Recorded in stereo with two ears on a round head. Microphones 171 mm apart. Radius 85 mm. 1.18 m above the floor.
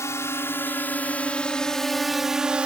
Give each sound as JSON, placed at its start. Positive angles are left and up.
{"t": 0.0, "sound": "a drone", "side_deg": 15}